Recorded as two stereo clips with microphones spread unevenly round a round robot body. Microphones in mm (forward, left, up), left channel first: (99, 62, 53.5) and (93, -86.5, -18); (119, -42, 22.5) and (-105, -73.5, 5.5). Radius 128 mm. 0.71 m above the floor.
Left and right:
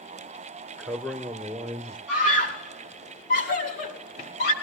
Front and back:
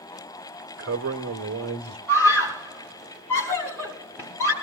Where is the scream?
90° left, 5.5 m.